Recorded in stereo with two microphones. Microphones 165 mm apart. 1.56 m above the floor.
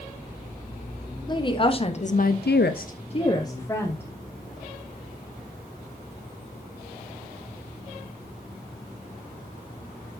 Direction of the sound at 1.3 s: 25° left (ahead or behind).